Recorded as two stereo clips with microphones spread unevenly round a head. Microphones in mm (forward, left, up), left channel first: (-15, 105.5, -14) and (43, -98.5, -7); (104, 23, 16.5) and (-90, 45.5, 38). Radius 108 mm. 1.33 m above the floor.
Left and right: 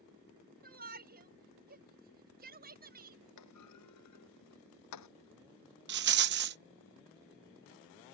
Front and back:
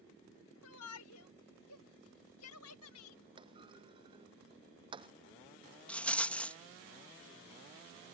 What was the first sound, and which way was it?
A shout, 25° right.